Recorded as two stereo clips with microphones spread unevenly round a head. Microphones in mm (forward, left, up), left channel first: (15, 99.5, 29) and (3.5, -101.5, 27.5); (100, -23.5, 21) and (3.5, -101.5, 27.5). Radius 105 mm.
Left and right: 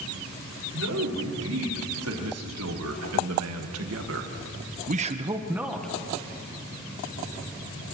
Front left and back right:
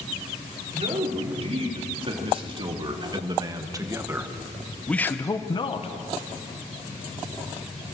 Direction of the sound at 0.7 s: 105° right.